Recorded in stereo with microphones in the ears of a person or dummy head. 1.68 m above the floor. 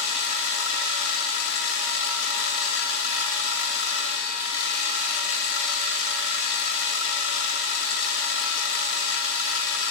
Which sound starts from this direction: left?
A machine running, at 0.0 s.